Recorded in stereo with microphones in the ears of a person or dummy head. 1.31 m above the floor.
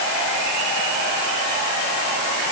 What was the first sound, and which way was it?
Only background noise.